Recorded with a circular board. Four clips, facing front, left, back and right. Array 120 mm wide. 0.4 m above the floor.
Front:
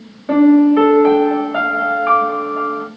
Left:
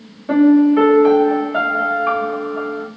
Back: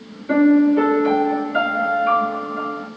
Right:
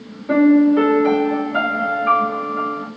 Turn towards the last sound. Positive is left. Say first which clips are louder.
# left 1 dB, front 4 dB
turn(degrees=20)